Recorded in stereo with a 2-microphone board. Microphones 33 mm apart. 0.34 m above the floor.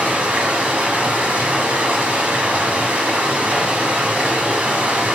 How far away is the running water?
About 0.9 m.